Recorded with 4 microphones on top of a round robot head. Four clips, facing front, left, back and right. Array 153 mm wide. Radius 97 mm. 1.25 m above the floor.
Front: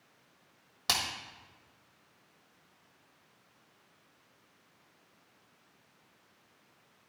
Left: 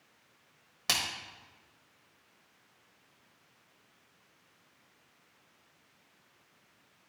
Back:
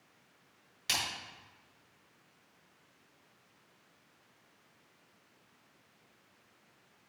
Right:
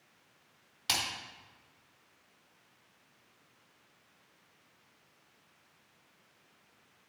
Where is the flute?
I don't hear a flute.